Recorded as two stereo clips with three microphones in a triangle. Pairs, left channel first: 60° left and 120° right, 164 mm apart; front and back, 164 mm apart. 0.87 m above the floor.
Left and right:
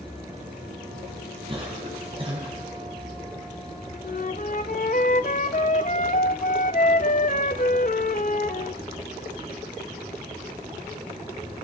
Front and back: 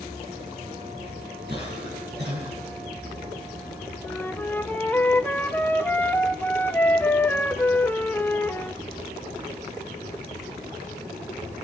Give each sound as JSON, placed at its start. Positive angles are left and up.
{"t": 1.5, "sound": "a cough", "azimuth_deg": -175, "distance_m": 5.5}
{"t": 4.0, "sound": "a flute", "azimuth_deg": 75, "distance_m": 0.9}